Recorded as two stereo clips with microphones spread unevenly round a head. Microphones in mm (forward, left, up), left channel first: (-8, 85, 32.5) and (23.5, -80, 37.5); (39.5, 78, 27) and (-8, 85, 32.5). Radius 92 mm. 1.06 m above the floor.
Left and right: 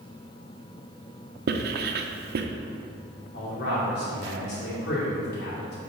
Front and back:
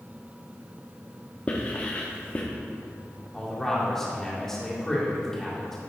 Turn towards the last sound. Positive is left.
turn(degrees=75)